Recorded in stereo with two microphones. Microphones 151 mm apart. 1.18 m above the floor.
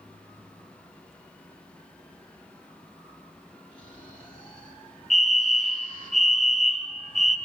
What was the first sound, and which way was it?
Snoring, 35° left (ahead or behind).